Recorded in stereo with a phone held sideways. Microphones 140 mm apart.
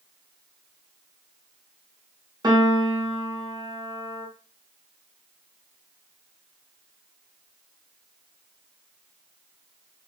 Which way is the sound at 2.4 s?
30° right (ahead or behind).